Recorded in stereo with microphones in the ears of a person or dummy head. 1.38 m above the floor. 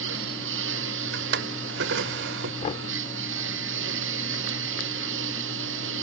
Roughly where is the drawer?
Right.